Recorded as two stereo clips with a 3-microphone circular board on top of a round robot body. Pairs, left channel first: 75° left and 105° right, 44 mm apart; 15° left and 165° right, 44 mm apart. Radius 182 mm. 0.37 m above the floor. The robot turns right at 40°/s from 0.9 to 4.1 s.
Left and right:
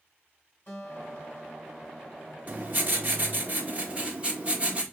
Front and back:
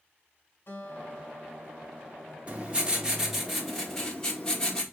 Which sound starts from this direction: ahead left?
A guitar, at 0.7 s.